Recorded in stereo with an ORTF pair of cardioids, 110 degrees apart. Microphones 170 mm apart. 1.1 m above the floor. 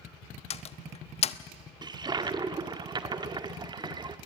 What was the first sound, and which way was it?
A door slam, 40° left.